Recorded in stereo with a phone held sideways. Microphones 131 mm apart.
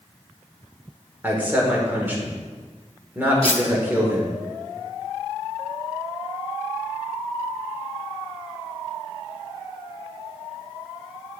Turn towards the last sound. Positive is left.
turn(degrees=45)  # may be behind; listen again after turning